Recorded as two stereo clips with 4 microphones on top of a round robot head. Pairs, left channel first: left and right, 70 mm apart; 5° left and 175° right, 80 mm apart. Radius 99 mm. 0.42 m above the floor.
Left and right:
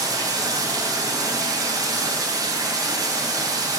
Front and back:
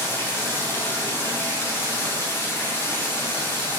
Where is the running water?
60° right, 3.5 m.